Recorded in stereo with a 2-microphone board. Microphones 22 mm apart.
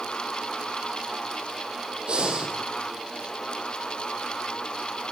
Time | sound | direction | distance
2.1 | breathing | 50° right (ahead or behind) | 4.5 m